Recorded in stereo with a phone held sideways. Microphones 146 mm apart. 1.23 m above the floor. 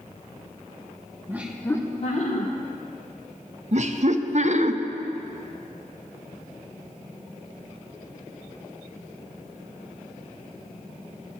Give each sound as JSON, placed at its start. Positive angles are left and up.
{"t": 1.3, "sound": "laughter", "side_deg": -15, "distance_m": 1.0}
{"t": 3.7, "sound": "laughter", "side_deg": -55, "distance_m": 0.7}